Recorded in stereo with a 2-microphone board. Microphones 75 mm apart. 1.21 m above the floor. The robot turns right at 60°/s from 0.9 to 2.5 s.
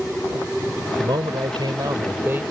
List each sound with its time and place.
1.0 s a man speaking: 110° right; by 2.4 s 20° right